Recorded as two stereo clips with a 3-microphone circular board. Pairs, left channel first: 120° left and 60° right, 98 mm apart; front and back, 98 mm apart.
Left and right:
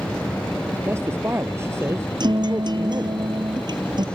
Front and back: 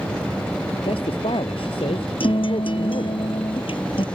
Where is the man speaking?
Straight ahead.